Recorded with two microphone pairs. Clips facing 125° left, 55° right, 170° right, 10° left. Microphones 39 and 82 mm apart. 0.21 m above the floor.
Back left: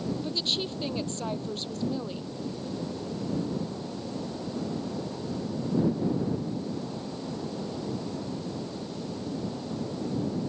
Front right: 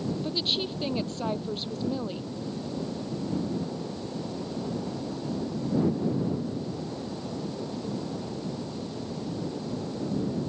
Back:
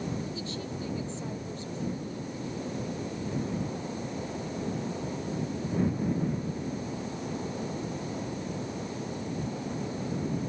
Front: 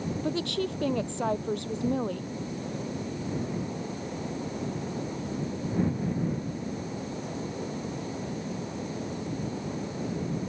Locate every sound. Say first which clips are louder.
0.2 s a woman speaking: front right 1 dB, front 7 dB; 30° left